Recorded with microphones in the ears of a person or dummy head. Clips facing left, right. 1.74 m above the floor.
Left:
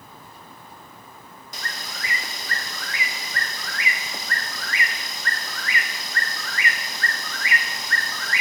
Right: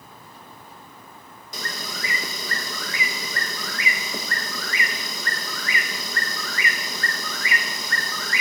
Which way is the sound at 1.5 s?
85° right.